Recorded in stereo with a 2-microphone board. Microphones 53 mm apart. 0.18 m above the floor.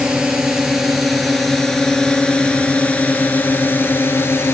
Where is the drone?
15° right (ahead or behind); by 4.5 s 50° left (ahead or behind).